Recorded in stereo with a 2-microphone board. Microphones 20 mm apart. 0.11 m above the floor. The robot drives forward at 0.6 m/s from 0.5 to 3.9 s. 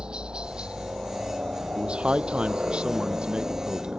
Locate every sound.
0.0 s a helicopter: 60° right (ahead or behind); by 4.0 s 70° right (ahead or behind)
1.8 s a man speaking: 65° right (ahead or behind); by 4.0 s 50° right (ahead or behind)